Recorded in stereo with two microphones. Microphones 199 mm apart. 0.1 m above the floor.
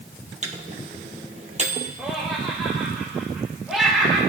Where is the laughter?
5° right (ahead or behind), 5 m.